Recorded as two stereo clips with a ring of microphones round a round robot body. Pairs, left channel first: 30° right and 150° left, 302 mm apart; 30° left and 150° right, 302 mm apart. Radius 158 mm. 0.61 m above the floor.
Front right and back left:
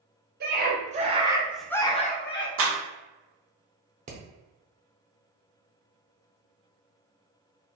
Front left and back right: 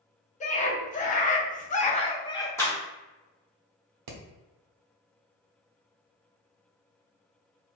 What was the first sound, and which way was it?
A scream, 95° left.